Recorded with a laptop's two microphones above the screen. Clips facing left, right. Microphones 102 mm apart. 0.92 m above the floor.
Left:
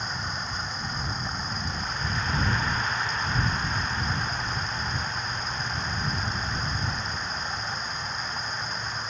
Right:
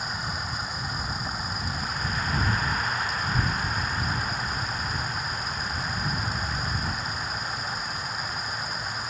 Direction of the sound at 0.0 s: 5° right (ahead or behind).